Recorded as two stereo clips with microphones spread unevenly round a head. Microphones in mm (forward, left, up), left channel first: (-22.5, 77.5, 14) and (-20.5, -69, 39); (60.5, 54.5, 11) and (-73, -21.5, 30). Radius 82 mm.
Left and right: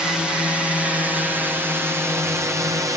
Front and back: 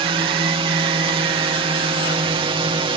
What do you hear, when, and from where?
0.0 s a drone: 175° left; by 3.0 s 150° right